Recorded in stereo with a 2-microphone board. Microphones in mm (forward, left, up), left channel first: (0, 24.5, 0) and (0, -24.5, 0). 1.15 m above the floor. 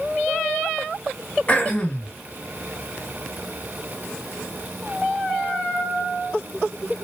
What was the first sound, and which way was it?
Throat clearing, 25° left (ahead or behind).